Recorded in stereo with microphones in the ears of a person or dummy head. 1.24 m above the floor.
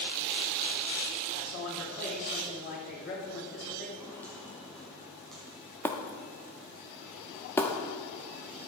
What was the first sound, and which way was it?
A man speaking, 55° left (ahead or behind).